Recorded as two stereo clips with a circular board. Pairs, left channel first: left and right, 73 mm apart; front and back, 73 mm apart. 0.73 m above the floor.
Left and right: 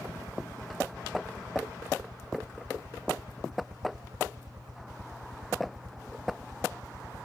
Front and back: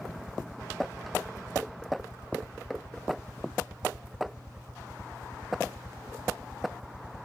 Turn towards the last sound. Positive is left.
turn(degrees=-105)